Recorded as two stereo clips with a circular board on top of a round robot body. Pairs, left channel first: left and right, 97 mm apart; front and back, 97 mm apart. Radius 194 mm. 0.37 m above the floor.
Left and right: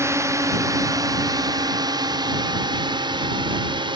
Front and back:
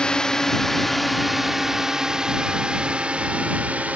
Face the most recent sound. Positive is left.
turn(degrees=-105)